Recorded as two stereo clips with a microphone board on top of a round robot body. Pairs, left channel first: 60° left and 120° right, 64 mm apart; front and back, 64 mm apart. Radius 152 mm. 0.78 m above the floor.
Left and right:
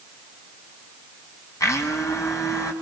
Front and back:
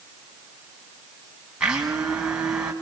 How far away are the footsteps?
I don't hear footsteps.